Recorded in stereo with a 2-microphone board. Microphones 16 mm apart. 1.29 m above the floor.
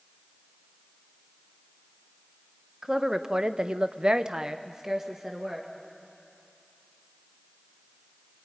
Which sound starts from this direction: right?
A woman speaking, at 2.8 s.